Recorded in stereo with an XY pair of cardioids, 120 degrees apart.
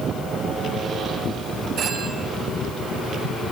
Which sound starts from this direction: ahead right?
A phone ringing, at 1.8 s.